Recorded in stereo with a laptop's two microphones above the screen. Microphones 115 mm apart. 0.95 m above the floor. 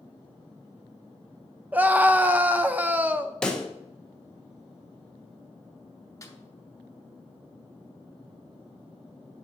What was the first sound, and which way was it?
A scream, 15° right (ahead or behind).